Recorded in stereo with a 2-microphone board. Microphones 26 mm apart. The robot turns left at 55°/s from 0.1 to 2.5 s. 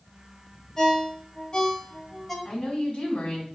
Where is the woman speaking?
45° left (ahead or behind), 1.6 m.